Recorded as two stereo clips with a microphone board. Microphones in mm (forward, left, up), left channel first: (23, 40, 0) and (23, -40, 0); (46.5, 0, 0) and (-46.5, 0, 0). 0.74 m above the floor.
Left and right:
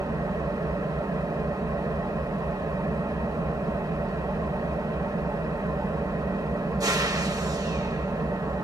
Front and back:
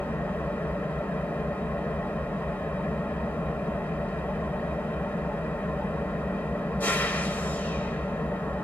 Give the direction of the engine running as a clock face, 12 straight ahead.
2 o'clock.